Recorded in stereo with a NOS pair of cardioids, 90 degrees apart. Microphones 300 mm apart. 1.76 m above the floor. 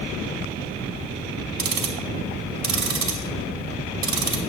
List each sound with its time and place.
1.6 s ticking: 65° right, 1.6 m